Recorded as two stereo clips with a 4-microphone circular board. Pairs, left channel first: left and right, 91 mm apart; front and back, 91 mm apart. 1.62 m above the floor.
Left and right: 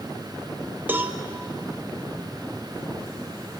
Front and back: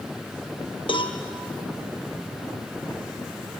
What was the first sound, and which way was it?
A cowbell, 20° right.